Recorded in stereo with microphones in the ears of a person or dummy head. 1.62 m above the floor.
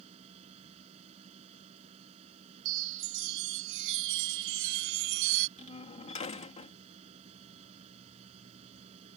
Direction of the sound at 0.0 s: 35° right (ahead or behind).